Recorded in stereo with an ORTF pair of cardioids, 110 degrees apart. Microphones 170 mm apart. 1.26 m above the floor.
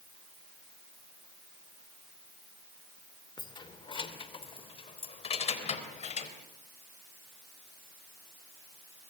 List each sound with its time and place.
3.4 s keys jangling: 25° left, 2.5 m; by 6.3 s 40° left, 4 m